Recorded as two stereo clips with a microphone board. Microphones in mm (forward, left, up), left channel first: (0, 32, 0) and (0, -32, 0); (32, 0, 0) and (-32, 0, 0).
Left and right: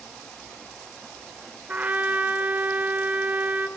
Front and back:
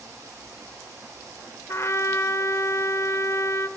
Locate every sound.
1.7 s a trumpet: 30° right, 1.5 m